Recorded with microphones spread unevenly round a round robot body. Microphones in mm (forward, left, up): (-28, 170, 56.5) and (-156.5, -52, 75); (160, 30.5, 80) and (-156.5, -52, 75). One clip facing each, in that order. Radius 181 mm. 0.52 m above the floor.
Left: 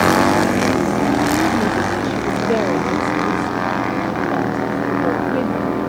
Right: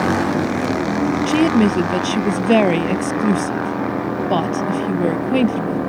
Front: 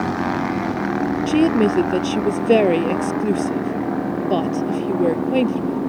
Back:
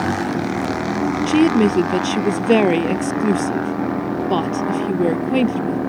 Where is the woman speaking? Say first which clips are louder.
Right 3 dB, back 2 dB; 90° right.